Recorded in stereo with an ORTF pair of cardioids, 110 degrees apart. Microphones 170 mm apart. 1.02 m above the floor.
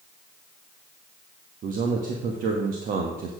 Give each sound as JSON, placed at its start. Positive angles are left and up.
{"t": 1.6, "sound": "a man speaking", "azimuth_deg": -60, "distance_m": 1.4}